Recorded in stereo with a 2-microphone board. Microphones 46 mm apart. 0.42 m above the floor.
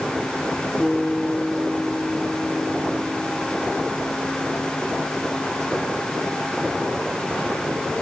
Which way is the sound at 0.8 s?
15° left (ahead or behind).